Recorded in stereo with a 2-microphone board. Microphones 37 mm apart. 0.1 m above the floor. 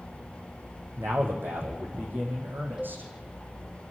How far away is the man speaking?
About 4.5 m.